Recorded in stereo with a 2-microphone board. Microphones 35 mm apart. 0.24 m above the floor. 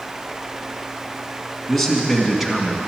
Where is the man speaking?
5° left (ahead or behind), 2.5 m; by 2.8 s 10° right (ahead or behind), 2 m.